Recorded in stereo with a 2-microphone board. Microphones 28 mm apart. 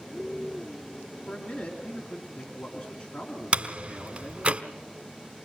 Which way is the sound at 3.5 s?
50° right (ahead or behind).